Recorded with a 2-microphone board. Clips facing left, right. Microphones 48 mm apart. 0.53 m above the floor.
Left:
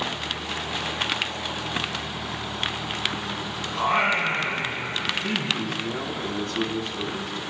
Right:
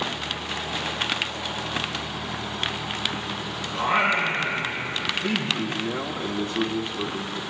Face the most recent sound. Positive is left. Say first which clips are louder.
# right 1 dB
turn(degrees=-10)  # may be behind; listen again after turning